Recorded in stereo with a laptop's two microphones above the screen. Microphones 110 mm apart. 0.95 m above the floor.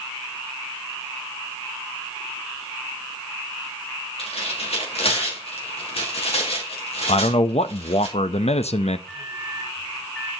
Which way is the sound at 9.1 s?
15° left (ahead or behind).